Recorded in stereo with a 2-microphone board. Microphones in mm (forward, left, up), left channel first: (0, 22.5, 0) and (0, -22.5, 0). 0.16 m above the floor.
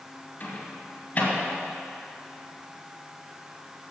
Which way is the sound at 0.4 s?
35° left (ahead or behind).